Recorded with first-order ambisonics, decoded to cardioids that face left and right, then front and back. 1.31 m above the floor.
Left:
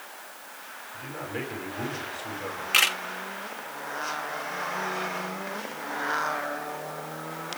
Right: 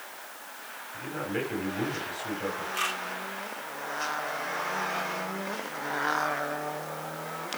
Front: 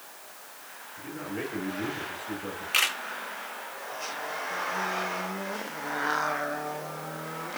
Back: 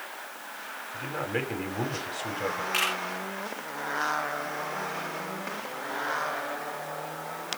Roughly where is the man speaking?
Behind.